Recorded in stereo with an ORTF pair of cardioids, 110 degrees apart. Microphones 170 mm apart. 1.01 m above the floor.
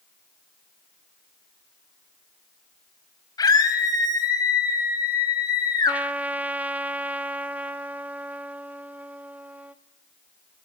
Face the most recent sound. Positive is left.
turn(degrees=-10)